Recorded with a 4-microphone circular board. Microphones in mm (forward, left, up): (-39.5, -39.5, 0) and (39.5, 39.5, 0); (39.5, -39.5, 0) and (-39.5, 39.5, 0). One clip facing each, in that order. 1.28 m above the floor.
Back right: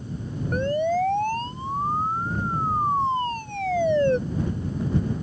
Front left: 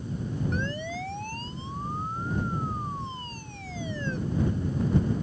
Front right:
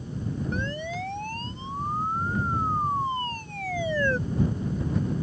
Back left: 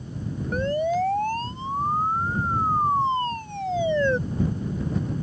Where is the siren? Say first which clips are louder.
Back right 10 dB, back left 9 dB; straight behind; by 4.2 s 155° right.